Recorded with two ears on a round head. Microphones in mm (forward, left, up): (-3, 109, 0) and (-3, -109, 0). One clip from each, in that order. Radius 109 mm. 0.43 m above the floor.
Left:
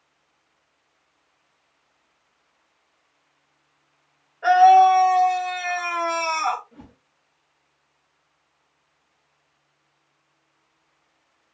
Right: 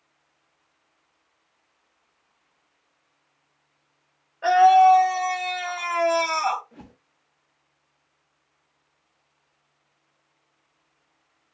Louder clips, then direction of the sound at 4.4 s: Left 2 dB; 65° right (ahead or behind).